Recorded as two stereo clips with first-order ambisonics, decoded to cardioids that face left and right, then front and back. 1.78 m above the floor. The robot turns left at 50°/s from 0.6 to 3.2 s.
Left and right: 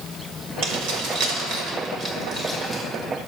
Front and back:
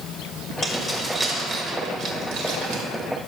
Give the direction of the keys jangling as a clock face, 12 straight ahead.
2 o'clock.